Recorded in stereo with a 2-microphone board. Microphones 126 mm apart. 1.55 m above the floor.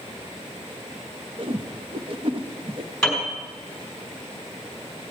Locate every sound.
1.4 s a whoosh: 50° right (ahead or behind), 0.7 m
3.0 s a piano: 5° left (ahead or behind), 5 m